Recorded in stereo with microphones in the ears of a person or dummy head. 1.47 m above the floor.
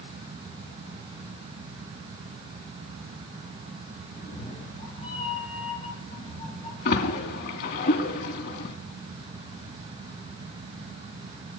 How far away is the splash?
About 3 m.